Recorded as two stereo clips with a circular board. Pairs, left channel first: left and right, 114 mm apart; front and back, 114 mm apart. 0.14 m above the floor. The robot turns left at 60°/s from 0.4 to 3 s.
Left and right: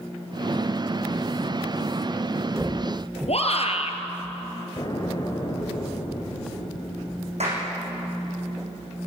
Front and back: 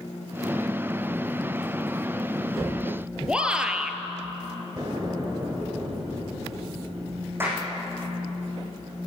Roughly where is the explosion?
Behind left.